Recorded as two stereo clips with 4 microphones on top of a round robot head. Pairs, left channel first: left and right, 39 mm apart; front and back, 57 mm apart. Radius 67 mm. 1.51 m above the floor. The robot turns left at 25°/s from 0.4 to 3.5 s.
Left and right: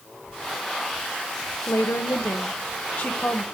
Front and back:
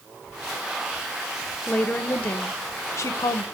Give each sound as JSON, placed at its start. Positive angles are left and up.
{"t": 1.7, "sound": "a woman speaking", "azimuth_deg": 70, "distance_m": 1.0}